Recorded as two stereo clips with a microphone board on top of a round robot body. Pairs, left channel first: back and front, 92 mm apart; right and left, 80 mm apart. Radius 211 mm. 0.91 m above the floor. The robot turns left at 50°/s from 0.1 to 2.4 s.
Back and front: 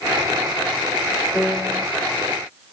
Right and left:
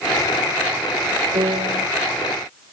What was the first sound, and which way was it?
A piano, 105° left.